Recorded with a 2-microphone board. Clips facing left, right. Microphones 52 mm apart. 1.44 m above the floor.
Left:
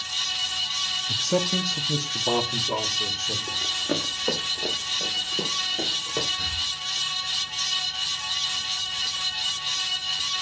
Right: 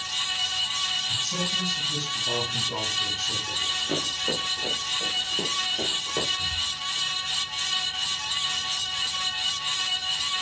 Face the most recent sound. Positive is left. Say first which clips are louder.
# even
turn(degrees=40)  # may be behind; listen again after turning